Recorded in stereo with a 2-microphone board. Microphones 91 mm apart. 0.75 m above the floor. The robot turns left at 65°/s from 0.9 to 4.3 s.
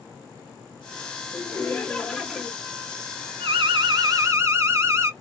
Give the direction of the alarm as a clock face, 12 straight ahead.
3 o'clock.